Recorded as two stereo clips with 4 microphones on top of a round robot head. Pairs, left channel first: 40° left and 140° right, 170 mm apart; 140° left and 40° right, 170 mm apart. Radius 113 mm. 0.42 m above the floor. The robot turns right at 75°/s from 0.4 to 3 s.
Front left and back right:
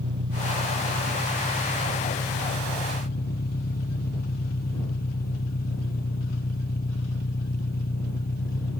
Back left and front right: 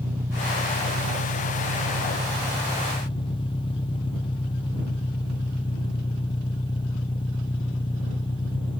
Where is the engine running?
120° right; by 8.8 s 75° left.